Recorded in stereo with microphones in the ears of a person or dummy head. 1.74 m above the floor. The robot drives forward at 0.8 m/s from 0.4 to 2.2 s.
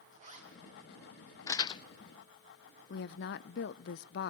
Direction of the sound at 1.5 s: 20° left (ahead or behind).